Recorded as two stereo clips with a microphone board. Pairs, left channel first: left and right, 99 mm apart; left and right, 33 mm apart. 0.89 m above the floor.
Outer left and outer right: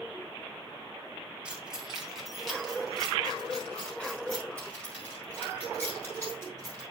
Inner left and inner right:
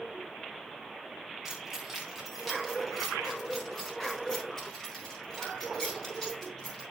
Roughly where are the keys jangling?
Centre.